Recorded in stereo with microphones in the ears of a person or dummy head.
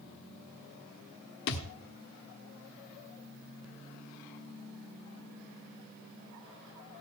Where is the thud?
55° left (ahead or behind), 1.2 m.